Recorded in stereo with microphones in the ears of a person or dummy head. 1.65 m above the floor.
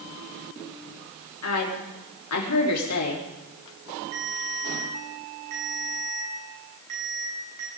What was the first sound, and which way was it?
A woman speaking, 85° left.